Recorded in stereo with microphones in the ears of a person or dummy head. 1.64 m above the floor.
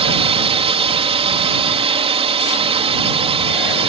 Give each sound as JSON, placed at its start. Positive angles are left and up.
{"t": 0.0, "sound": "a drone", "side_deg": -35}